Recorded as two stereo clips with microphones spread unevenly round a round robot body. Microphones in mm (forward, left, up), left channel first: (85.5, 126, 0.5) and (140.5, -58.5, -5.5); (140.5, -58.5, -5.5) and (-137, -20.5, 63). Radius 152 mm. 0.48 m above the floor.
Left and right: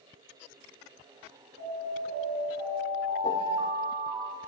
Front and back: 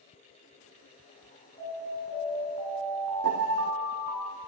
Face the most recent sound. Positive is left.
turn(degrees=165)